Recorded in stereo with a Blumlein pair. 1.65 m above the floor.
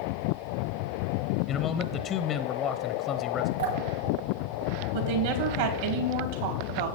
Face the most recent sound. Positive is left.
turn(degrees=-55)